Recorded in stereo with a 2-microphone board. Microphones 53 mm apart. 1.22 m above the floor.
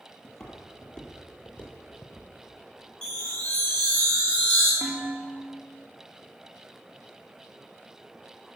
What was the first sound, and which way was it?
Footsteps, centre (ahead or behind).